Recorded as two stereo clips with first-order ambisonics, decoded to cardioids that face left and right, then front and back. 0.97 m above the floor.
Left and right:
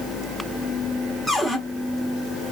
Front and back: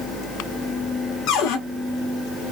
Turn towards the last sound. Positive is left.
turn(degrees=-10)